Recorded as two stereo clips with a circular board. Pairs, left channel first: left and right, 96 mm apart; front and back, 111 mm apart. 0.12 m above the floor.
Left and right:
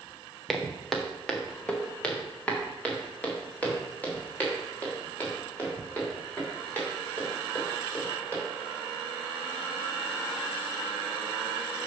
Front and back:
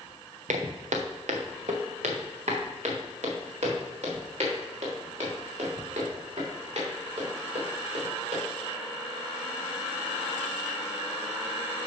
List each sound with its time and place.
0.5 s footsteps: 175° left, 1.0 m; by 8.4 s 160° left, 5 m